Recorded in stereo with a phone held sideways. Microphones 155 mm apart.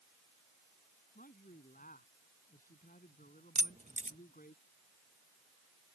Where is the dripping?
I don't hear dripping.